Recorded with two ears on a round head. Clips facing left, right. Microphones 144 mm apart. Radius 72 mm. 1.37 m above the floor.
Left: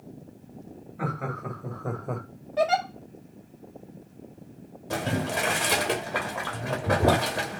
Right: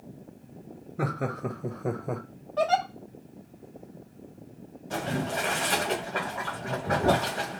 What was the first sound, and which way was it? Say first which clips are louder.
Laughter: right 2 dB; 50° right (ahead or behind).